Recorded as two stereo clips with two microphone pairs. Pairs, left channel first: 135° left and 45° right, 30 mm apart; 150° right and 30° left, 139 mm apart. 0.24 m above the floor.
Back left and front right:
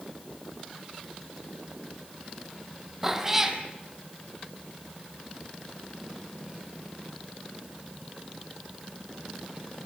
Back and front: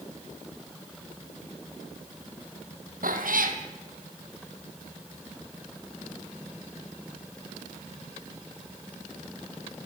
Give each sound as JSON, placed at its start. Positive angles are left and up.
{"t": 3.0, "sound": "a cat meowing", "azimuth_deg": 35, "distance_m": 2.5}